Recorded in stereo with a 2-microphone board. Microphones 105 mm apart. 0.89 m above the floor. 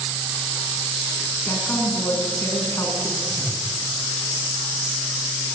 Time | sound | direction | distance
1.4 | a woman speaking | 25° left (ahead or behind) | 7.5 m
3.3 | a whoosh | centre (ahead or behind) | 2 m